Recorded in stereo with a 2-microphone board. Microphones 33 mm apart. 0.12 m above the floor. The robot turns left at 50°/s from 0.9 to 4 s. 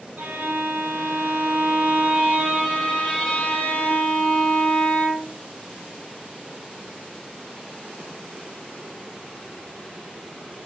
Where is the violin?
85° right, 3 m; by 5.4 s 120° left, 3 m.